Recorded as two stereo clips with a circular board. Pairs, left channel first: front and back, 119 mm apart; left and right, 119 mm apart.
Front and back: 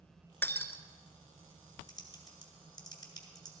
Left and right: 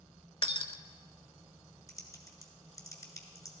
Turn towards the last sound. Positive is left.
turn(degrees=40)